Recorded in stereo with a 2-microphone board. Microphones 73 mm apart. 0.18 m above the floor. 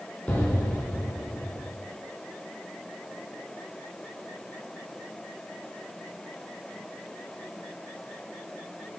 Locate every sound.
0.3 s an explosion: 25° left (ahead or behind), 2.0 m